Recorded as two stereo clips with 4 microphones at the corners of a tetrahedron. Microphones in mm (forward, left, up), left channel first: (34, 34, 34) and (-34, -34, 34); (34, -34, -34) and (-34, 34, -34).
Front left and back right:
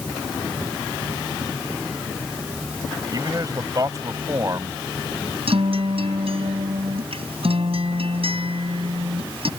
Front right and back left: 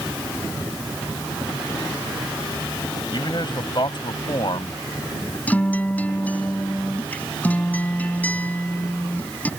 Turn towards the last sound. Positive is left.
turn(degrees=-120)